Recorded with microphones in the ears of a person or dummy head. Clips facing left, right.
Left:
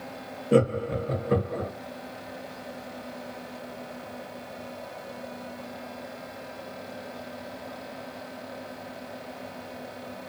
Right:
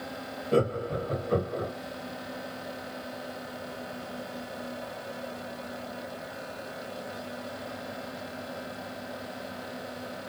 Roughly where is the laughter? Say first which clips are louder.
Left 4 dB; left.